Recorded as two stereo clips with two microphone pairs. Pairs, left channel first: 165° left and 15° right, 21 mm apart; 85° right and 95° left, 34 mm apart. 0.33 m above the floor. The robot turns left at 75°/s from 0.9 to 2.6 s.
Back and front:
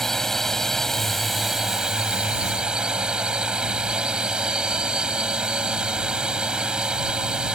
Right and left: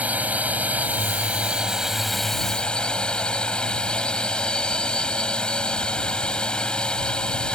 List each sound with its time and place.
0.0 s a drone: 95° left; by 7.6 s 30° right